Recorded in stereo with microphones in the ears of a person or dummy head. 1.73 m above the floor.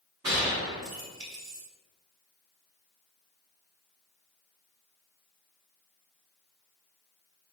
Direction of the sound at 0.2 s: 20° right (ahead or behind).